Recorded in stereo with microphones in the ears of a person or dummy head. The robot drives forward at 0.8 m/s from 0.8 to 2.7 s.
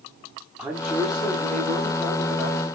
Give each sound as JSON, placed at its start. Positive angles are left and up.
{"t": 0.6, "sound": "a man speaking", "side_deg": -5, "distance_m": 0.7}